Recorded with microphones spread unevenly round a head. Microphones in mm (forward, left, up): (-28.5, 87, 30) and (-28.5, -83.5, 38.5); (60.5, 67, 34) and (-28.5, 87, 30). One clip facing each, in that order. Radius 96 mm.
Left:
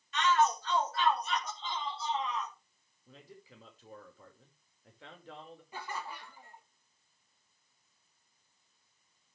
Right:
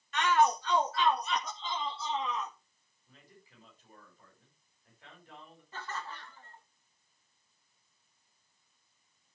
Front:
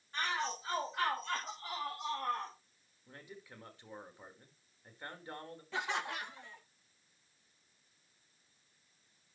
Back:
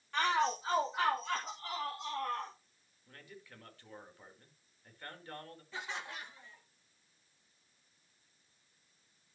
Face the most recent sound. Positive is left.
turn(degrees=10)